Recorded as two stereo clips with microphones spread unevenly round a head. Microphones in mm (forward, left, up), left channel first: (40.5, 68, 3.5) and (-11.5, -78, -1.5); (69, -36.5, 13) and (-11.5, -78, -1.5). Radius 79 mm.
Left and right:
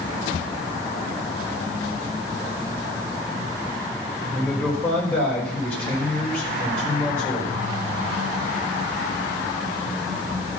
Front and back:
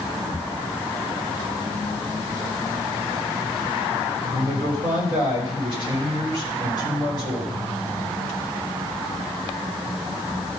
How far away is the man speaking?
About 4 m.